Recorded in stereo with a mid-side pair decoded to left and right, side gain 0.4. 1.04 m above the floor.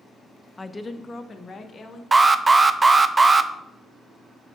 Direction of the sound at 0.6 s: 15° left.